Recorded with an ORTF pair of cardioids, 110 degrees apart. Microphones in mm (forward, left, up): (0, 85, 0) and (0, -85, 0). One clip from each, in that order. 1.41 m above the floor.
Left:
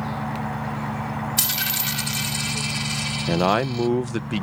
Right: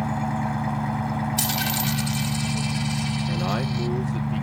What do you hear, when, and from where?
0.0 s an engine running: 50° right
1.4 s a dropped coin: 5° left
3.3 s a man speaking: 55° left